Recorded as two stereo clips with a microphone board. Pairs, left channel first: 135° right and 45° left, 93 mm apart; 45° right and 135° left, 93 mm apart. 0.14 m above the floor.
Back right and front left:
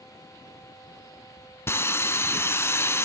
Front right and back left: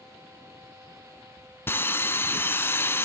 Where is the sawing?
90° right, 0.8 m.